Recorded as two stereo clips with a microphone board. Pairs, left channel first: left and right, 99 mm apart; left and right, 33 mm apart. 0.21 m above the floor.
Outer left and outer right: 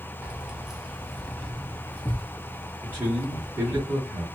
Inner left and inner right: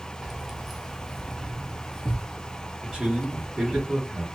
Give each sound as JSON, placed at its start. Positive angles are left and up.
{"t": 0.2, "sound": "keys jangling", "side_deg": -15, "distance_m": 0.7}
{"t": 2.8, "sound": "a man speaking", "side_deg": -20, "distance_m": 1.5}